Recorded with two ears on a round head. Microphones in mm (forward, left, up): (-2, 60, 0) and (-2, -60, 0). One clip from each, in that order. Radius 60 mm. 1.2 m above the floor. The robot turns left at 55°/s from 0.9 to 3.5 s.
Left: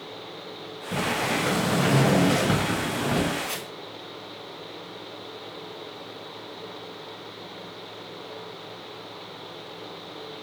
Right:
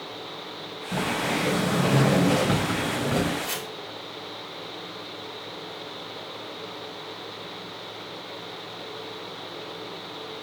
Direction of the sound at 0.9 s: 85° left.